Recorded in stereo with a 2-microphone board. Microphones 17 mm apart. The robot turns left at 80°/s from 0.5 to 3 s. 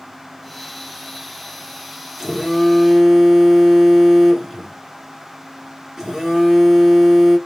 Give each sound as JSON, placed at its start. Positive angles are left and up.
{"t": 2.2, "sound": "a phone buzzing", "azimuth_deg": -35, "distance_m": 2.0}